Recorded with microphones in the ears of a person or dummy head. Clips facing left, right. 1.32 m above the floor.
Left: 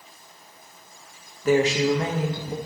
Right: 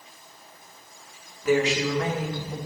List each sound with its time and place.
1.4 s a woman speaking: 40° left (ahead or behind), 1.1 m; by 2.6 s 20° left (ahead or behind), 1.7 m